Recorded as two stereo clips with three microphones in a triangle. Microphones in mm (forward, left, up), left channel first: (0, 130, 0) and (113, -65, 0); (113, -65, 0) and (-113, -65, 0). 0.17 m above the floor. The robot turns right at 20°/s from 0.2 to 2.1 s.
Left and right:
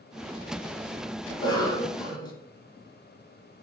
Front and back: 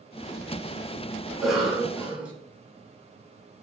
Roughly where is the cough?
Left.